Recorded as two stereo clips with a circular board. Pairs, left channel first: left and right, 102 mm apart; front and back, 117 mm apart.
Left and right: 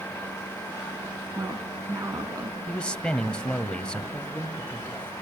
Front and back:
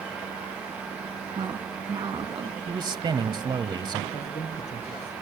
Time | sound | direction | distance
1.4 | a woman speaking | 140° right | 3 m
2.7 | a man speaking | 165° left | 1.3 m
4.1 | a man speaking | 15° left | 6.5 m